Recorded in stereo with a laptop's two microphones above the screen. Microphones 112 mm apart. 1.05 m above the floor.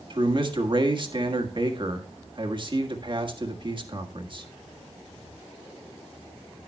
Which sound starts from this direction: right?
A man speaking, at 0.1 s.